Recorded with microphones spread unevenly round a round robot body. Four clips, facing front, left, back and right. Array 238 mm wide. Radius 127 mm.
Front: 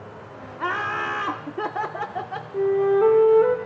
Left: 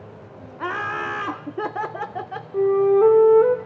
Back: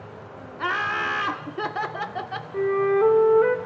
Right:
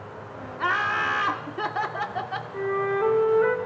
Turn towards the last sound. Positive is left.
turn(degrees=80)